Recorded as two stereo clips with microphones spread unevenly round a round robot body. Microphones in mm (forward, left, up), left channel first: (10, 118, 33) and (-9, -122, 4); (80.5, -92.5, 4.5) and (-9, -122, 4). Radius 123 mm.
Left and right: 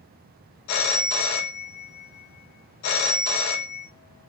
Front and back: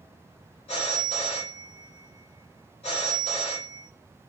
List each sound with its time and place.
0.7 s a phone ringing: 65° left, 0.5 m